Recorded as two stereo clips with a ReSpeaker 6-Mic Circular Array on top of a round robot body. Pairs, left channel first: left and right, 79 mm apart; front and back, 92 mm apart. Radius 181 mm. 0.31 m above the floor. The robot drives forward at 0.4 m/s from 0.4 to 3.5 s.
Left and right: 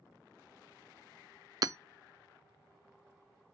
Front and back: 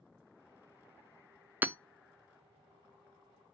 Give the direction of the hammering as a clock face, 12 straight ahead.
4 o'clock.